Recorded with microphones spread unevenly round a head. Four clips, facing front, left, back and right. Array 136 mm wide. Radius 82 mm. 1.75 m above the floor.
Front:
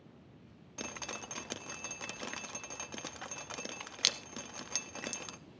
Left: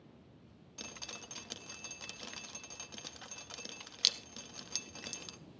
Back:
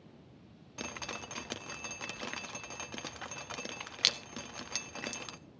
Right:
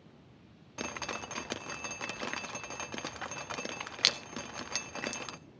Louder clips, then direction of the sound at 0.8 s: Right 12 dB, back 1 dB; 70° right.